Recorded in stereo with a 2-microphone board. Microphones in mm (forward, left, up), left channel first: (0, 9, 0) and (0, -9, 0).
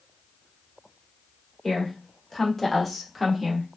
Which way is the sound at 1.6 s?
30° left (ahead or behind).